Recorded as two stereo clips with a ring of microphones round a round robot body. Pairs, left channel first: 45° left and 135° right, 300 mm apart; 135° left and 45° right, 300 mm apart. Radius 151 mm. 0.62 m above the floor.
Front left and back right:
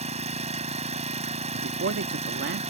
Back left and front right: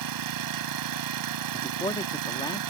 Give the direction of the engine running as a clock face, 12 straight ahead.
2 o'clock.